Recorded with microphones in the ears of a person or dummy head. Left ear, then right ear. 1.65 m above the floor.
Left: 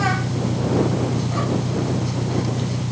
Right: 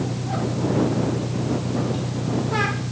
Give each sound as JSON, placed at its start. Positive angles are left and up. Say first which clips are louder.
{"t": 0.0, "sound": "an engine running", "louder": "left 5 dB", "side_deg": 75}